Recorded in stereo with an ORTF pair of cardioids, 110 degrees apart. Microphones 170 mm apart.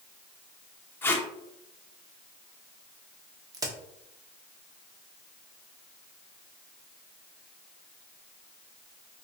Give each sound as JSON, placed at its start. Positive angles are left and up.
{"t": 1.0, "sound": "tape being pulled", "azimuth_deg": 10, "distance_m": 0.7}
{"t": 3.5, "sound": "a crack", "azimuth_deg": -20, "distance_m": 0.8}